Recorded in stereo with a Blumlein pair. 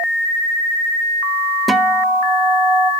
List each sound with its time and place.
1.7 s a guitar: 5° right, 0.7 m